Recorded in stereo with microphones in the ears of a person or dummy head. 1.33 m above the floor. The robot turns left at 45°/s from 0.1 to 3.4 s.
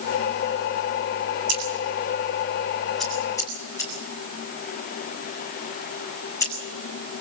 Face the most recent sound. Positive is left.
turn(degrees=20)  # may be behind; listen again after turning